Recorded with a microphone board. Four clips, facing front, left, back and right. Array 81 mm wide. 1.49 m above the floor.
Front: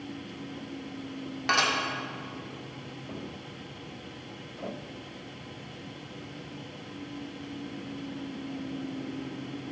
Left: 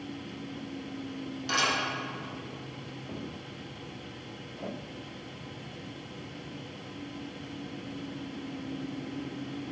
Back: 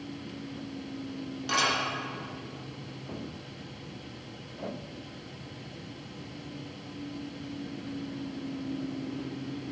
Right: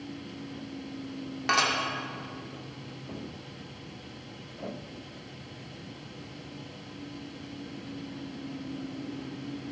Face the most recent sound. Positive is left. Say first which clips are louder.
# right 3 dB, front 2 dB
turn(degrees=-50)